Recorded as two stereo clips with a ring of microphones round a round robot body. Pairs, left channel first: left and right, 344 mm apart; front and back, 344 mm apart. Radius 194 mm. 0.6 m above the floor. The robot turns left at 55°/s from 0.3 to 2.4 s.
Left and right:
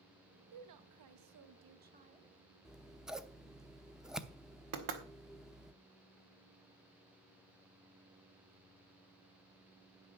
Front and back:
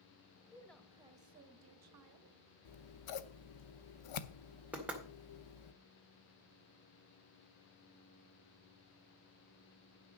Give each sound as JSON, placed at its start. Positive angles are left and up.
{"t": 0.5, "sound": "a woman speaking", "azimuth_deg": -75, "distance_m": 1.2}
{"t": 2.6, "sound": "scissors", "azimuth_deg": 0, "distance_m": 0.9}
{"t": 4.7, "sound": "knocking", "azimuth_deg": -95, "distance_m": 1.9}